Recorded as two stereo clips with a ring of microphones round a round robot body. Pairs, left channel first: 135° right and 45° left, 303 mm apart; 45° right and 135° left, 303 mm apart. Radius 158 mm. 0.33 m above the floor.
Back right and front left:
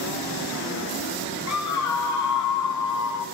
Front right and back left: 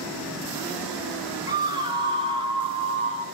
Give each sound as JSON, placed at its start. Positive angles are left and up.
{"t": 1.5, "sound": "a scream", "azimuth_deg": -150, "distance_m": 2.5}